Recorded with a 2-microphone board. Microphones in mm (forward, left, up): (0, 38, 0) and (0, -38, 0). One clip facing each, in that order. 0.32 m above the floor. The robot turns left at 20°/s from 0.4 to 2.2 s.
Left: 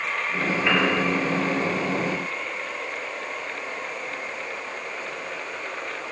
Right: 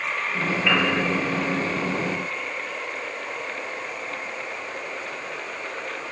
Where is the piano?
20° left (ahead or behind), 7.5 m; by 0.9 s 25° left (ahead or behind), 7.5 m.